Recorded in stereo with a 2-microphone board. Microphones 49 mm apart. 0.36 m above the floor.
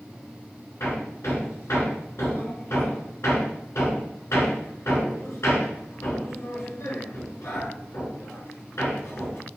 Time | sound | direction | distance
0.8 | hammering | 60° left (ahead or behind) | 4.5 m